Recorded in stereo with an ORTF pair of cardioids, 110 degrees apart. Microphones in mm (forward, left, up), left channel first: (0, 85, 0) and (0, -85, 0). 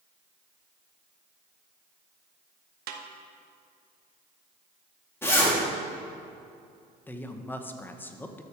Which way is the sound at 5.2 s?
15° left.